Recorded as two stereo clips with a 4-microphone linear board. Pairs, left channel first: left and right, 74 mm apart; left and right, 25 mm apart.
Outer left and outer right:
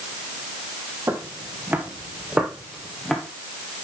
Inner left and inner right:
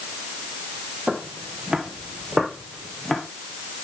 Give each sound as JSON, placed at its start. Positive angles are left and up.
{"t": 1.1, "sound": "footsteps", "side_deg": -35, "distance_m": 2.0}